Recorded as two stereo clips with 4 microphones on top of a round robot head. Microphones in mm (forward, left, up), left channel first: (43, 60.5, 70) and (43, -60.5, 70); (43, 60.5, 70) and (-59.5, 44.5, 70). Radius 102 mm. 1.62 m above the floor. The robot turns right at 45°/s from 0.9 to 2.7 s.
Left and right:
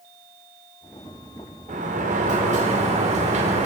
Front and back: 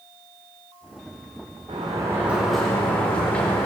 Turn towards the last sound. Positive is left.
turn(degrees=-75)